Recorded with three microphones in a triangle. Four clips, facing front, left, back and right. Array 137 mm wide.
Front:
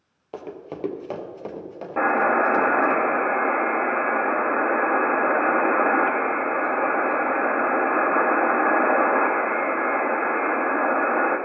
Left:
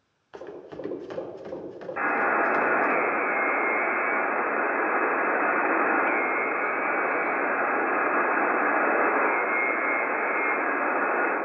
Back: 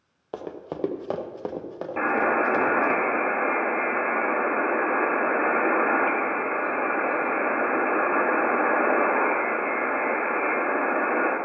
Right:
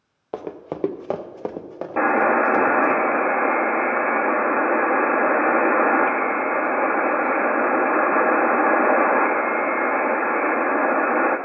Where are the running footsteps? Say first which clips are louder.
Right 8 dB, back 1 dB; 105° right, 1.1 m; by 3.0 s 115° right, 2.5 m.